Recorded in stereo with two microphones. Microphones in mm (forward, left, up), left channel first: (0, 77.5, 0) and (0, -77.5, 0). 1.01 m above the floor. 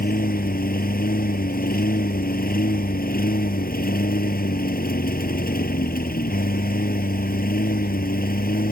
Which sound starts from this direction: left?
A lawn mower, at 0.0 s.